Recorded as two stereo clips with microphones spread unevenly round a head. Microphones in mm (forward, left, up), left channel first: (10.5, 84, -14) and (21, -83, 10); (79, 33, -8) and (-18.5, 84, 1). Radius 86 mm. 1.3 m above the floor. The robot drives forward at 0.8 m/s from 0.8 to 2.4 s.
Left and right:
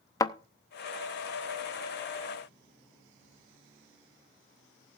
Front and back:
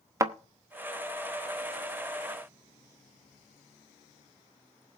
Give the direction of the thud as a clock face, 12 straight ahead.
7 o'clock.